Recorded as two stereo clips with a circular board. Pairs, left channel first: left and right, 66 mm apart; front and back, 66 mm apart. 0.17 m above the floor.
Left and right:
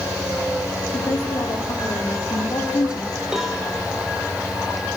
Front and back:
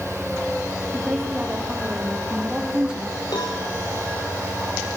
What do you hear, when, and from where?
0.9 s a woman speaking: 100° left, 7.5 m; by 3.2 s 105° left, 5 m
3.3 s a cowbell: 10° right, 6 m